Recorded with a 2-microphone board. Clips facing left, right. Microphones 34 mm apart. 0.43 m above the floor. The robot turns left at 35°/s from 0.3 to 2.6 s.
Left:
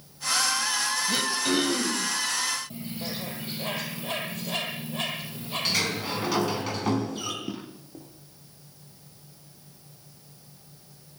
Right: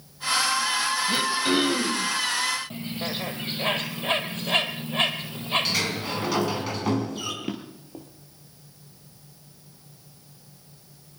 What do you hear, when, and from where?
1.1 s throat clearing: 5° right, 2.5 m; by 2.1 s 45° right, 2.5 m
2.7 s a bird: 50° right (ahead or behind), 3 m
5.7 s a sliding door: centre (ahead or behind), 4.5 m
7.4 s a drawer: 65° right (ahead or behind), 4 m